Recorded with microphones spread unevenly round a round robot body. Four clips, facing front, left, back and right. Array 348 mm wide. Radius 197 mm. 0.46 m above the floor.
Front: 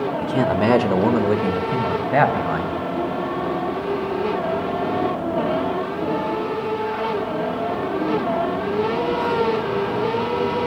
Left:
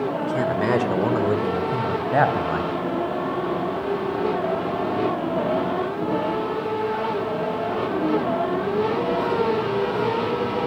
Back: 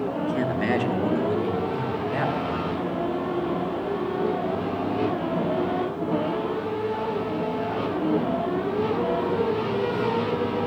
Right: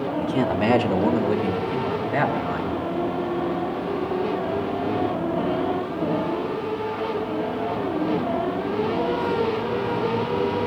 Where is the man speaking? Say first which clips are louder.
Right 3 dB, front 7 dB; 10° right, 1.9 m; by 2.8 s 35° left, 4 m.